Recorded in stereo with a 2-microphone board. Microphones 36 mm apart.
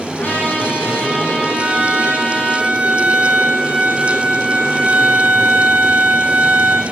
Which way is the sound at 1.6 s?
50° right (ahead or behind).